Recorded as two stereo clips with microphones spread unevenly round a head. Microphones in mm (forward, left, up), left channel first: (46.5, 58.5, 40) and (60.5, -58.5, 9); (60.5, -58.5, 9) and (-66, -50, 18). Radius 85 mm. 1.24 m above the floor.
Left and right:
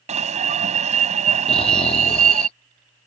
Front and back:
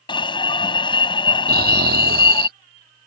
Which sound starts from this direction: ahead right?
An alarm, at 0.1 s.